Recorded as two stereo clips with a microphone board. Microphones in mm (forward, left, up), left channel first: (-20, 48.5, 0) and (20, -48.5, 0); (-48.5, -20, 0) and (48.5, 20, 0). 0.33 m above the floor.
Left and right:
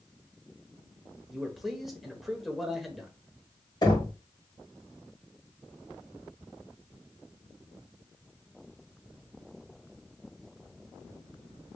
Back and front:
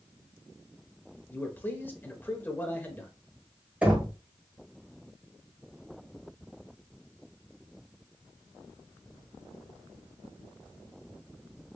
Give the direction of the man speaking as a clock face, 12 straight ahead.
5 o'clock.